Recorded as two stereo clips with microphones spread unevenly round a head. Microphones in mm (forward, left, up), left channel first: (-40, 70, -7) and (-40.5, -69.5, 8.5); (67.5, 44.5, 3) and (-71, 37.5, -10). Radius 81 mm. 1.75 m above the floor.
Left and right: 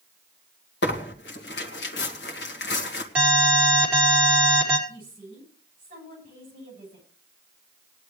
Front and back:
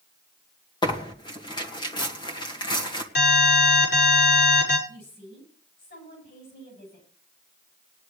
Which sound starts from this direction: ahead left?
Tearing paper, at 0.8 s.